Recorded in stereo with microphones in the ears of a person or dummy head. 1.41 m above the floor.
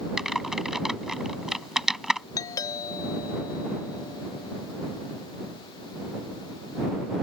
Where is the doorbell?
25° left (ahead or behind).